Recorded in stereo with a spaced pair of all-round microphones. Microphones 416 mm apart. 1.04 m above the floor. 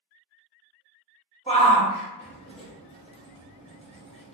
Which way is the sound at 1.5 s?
15° left (ahead or behind).